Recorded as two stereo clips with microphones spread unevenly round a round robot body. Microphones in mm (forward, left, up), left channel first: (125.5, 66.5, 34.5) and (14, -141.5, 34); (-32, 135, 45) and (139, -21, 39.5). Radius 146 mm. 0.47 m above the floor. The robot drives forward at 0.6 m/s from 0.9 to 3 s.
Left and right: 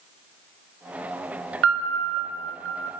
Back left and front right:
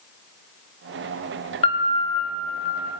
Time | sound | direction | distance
1.6 | a piano | 155° right | 2.5 m